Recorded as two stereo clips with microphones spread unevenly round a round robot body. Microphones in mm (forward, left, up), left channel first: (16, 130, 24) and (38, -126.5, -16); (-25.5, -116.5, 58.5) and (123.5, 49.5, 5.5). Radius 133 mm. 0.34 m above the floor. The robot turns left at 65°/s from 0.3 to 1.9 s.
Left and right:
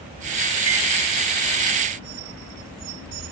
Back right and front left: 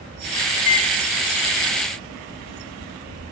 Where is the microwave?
110° right, 2 m; by 0.9 s 125° right, 2 m.